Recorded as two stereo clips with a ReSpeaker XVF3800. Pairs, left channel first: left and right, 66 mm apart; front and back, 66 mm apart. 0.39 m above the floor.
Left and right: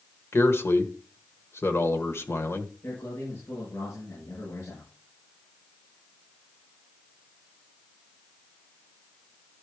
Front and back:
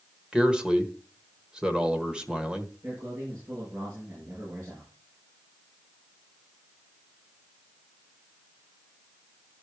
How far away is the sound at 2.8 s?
About 6 m.